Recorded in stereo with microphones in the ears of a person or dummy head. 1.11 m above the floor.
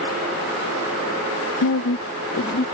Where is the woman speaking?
60° left (ahead or behind); by 2.6 s 40° left (ahead or behind).